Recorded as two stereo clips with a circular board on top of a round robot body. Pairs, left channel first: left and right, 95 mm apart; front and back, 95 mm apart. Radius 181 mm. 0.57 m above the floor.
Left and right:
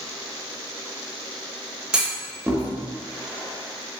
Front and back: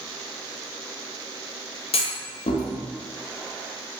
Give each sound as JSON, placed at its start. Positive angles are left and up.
{"t": 1.9, "sound": "a clunk", "azimuth_deg": -10, "distance_m": 0.6}